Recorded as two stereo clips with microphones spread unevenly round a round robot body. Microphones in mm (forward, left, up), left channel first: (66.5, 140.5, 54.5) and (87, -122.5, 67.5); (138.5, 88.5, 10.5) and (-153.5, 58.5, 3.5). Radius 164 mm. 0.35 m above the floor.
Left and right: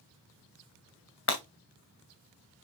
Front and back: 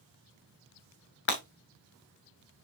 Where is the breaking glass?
55° left, 3 m.